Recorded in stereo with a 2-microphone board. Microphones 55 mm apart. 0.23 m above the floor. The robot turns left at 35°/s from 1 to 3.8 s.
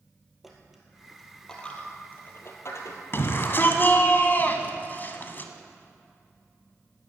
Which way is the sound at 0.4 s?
5° right (ahead or behind).